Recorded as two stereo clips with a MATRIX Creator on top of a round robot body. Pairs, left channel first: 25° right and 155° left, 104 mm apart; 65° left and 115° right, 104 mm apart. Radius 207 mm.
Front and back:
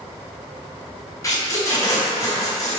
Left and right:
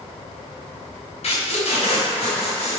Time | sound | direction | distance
1.2 | tape being pulled | 40° left | 3 m